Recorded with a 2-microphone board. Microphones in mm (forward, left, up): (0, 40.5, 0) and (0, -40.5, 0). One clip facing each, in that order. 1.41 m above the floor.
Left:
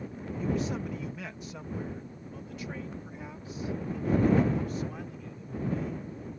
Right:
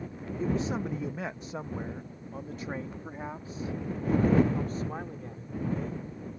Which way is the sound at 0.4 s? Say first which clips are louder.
Right 1 dB; 30° right (ahead or behind).